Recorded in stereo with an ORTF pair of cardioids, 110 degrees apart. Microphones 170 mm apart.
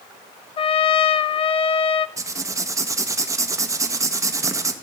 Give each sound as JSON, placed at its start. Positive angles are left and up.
{"t": 0.6, "sound": "a trumpet", "azimuth_deg": 35, "distance_m": 0.7}
{"t": 2.2, "sound": "writing", "azimuth_deg": -20, "distance_m": 1.4}